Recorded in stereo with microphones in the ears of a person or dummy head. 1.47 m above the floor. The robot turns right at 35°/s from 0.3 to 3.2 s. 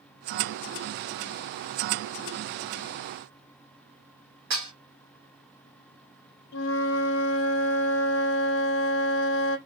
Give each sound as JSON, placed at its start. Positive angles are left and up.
{"t": 4.5, "sound": "dishes clattering", "side_deg": -60, "distance_m": 2.5}
{"t": 6.5, "sound": "a flute", "side_deg": 90, "distance_m": 0.7}